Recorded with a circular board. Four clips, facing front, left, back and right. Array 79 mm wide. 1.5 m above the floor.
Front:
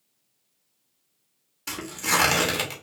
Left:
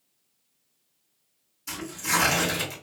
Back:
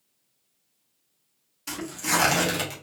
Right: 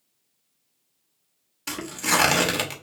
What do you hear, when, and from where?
1.7 s tearing paper: 70° right, 0.8 m